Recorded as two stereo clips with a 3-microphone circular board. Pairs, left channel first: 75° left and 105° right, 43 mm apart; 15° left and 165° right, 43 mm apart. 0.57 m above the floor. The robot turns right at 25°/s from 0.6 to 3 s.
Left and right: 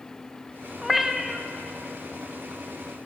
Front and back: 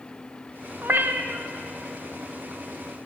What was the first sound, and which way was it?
A cat meowing, 165° left.